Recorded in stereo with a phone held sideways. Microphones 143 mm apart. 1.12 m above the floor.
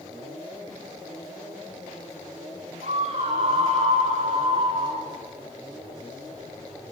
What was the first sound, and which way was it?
A scream, 60° right (ahead or behind).